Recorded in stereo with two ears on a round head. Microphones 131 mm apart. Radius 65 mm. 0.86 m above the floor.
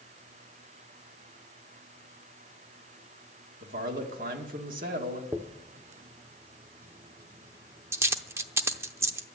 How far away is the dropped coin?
About 0.7 m.